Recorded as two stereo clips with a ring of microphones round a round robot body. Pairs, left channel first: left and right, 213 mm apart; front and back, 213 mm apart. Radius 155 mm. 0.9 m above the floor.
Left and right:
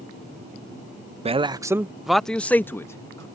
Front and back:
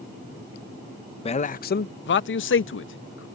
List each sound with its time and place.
1.2 s a man speaking: 45° right; by 3.3 s 15° left